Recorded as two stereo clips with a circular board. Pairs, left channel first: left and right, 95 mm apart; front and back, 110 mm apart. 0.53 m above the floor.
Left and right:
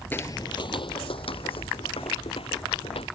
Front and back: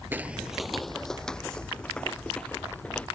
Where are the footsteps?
130° left; by 3.1 s 80° left.